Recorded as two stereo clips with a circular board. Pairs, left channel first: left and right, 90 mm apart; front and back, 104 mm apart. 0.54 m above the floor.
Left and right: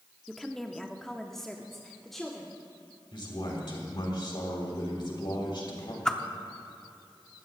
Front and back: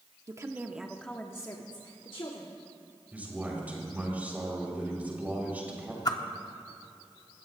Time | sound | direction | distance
0.3 | a woman speaking | 175° left | 0.9 m
3.1 | a man speaking | 105° left | 3 m
6.0 | a whoosh | 10° left | 0.7 m